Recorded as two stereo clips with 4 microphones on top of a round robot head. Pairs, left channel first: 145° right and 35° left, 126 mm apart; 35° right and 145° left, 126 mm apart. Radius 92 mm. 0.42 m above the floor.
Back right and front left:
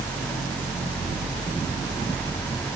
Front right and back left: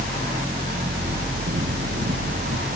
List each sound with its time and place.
Only background noise.